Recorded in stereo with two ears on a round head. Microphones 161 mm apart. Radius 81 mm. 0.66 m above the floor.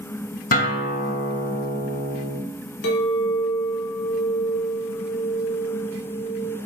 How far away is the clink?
About 1.5 m.